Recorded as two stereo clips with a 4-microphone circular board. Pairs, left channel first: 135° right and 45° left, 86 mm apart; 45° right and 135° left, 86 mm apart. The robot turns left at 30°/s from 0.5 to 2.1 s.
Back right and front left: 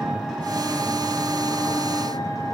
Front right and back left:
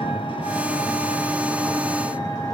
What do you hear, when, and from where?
0.0 s an engine running: 40° right, 5 m; by 2.6 s 85° right, 5 m